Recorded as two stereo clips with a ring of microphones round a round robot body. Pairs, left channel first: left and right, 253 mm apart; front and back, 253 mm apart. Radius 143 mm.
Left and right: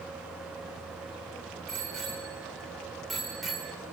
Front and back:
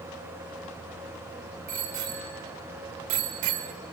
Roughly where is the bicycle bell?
Behind.